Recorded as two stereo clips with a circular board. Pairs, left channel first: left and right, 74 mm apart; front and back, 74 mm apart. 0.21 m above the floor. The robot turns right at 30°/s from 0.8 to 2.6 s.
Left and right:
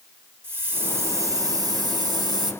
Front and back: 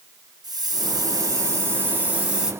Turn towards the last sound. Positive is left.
turn(degrees=-100)